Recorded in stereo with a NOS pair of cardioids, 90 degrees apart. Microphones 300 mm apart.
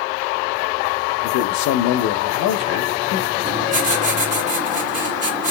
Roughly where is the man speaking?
Left.